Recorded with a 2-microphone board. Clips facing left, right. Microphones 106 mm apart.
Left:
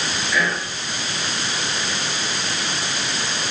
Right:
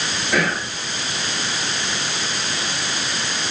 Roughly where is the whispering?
Right.